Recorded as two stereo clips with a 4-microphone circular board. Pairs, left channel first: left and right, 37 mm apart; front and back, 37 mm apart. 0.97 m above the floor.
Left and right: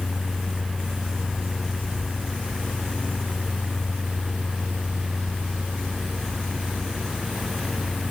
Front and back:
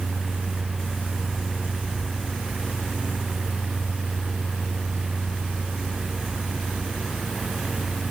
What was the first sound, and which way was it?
Only background noise.